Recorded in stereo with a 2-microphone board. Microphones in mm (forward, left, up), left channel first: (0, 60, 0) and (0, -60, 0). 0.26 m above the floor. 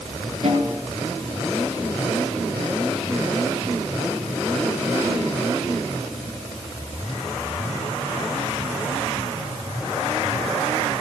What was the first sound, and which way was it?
A snare drum, 60° right (ahead or behind).